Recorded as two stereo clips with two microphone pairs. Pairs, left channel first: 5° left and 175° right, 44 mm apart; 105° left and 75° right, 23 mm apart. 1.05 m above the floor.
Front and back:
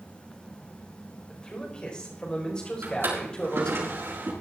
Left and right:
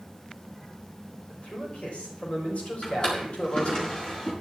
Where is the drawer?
160° left, 4.5 m.